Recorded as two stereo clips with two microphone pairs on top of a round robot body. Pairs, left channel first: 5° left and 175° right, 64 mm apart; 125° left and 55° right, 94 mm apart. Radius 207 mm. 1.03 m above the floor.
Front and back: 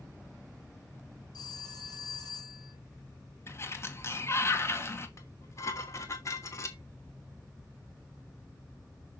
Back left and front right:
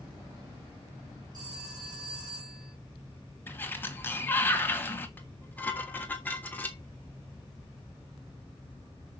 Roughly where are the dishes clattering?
Ahead left.